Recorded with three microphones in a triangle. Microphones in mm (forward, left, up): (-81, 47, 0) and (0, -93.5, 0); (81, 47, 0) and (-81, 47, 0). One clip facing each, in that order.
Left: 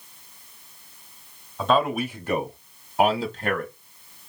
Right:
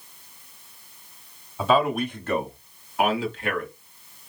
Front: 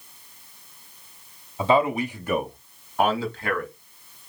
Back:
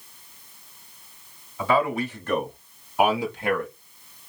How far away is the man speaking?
About 1.1 m.